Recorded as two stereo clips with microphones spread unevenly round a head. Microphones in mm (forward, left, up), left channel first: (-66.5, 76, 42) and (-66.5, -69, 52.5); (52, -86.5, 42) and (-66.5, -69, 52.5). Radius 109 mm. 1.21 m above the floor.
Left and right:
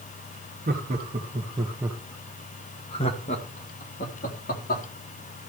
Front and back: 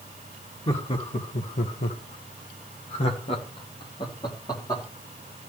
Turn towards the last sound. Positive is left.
turn(degrees=60)